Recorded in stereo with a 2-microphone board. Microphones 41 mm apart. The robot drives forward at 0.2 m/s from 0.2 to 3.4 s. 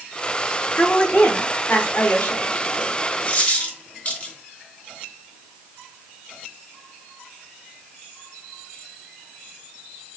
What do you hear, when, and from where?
0.8 s a woman speaking: 40° left (ahead or behind), 1.1 m; by 2.9 s 50° left (ahead or behind), 0.9 m
3.3 s a dropped coin: 45° left (ahead or behind), 1.2 m; by 4.3 s 40° left (ahead or behind), 1.2 m